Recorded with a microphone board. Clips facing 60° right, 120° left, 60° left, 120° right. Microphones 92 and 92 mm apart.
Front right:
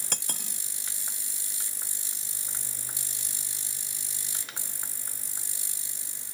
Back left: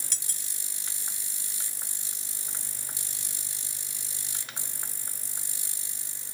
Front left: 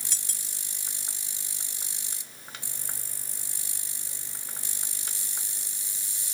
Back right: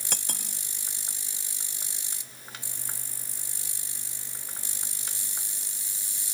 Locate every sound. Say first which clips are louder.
0.1 s cutlery clinking: front right 8 dB, back right 8 dB; 90° right